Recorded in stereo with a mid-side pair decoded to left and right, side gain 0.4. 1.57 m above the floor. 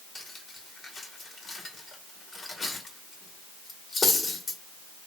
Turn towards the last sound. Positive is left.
turn(degrees=35)